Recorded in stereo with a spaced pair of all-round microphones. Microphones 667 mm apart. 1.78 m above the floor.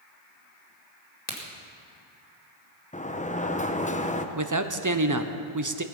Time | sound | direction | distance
1.3 | a crack | 75° left (ahead or behind) | 2.5 m
2.9 | a sliding door | 10° left (ahead or behind) | 0.8 m
4.3 | a man speaking | 30° right (ahead or behind) | 0.9 m